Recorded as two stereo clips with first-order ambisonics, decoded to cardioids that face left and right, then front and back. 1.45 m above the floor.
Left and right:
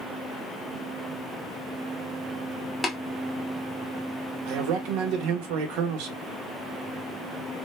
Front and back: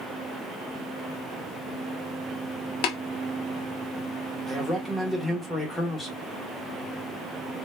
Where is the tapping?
10° left, 1.2 m.